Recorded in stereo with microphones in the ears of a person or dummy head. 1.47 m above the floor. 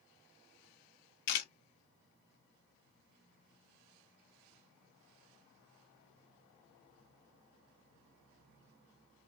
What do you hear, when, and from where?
1.3 s a camera shutter: 55° left (ahead or behind), 0.9 m